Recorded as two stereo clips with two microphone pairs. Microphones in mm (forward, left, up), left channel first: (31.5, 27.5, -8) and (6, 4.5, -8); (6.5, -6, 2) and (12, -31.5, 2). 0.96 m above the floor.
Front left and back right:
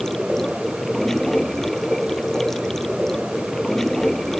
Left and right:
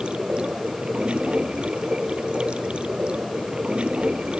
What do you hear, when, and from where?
0.0 s running water: 35° right